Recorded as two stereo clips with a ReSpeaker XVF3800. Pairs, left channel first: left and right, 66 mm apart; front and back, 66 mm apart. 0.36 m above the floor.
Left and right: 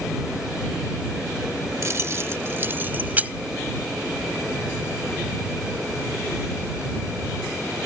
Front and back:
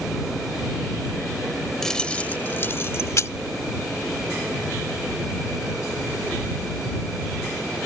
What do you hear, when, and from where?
1.8 s keys jangling: 80° right; by 3.3 s 30° right